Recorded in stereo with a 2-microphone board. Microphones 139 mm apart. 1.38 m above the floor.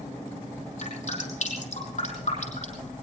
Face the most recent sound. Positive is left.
turn(degrees=60)  # may be behind; listen again after turning